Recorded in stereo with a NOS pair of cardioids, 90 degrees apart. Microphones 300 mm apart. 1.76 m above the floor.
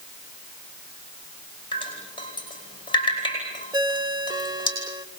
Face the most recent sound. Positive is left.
turn(degrees=-15)